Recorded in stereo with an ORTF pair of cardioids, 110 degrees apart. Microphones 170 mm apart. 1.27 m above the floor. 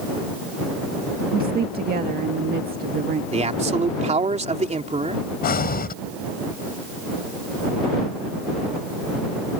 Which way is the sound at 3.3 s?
40° right.